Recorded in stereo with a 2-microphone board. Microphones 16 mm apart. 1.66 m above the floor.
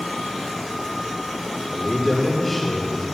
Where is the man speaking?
10° left (ahead or behind), 3.5 m.